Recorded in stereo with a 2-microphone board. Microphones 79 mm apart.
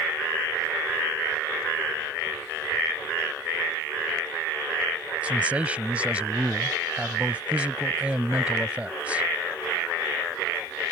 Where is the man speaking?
15° right (ahead or behind).